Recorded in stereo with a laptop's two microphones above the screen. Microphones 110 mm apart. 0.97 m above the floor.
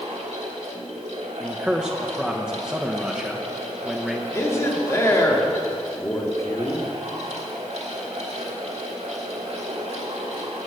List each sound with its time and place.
0.0 s a fan: 70° right (ahead or behind), 1.4 m
1.4 s a man speaking: 5° right (ahead or behind), 0.5 m
4.3 s a man speaking: 25° left (ahead or behind), 2.0 m